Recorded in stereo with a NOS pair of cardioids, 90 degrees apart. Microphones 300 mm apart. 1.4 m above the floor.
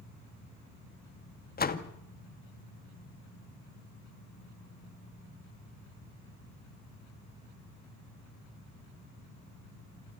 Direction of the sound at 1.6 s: 30° left.